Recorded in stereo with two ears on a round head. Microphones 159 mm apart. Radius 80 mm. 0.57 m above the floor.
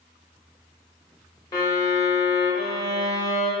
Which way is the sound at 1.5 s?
20° left (ahead or behind).